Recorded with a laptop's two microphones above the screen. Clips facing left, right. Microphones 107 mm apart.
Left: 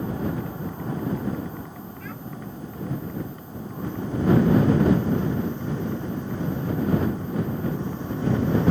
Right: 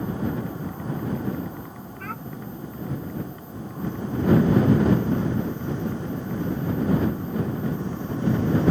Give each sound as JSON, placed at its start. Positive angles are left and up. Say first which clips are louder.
{"t": 2.0, "sound": "a child speaking", "louder": "right 5 dB", "side_deg": -60}